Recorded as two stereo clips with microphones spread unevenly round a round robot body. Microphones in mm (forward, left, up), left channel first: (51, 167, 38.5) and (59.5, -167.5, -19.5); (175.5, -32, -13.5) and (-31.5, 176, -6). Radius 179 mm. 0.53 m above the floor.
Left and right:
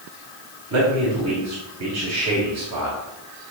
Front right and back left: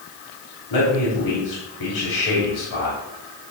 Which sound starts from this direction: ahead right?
A man speaking, at 0.7 s.